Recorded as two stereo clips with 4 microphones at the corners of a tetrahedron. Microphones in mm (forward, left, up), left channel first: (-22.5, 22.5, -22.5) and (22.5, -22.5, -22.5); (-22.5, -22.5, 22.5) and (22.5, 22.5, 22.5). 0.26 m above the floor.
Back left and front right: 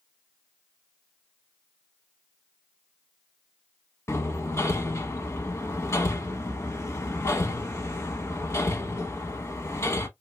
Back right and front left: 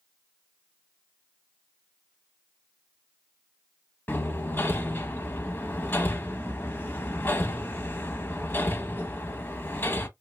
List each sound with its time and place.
4.1 s hammering: 170° left, 0.7 m